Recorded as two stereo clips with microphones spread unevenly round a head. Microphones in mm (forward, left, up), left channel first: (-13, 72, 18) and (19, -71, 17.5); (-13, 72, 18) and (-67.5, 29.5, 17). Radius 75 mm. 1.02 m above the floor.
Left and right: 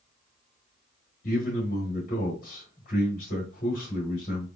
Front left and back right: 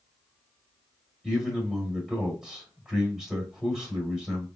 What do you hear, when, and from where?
1.2 s a man speaking: 135° left, 1.6 m